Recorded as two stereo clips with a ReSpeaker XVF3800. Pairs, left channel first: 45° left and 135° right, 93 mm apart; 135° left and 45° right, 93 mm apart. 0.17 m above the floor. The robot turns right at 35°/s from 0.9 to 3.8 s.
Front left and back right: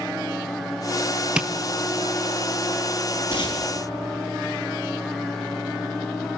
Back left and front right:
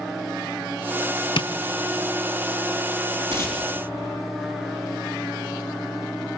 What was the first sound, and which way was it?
Tapping, 145° left.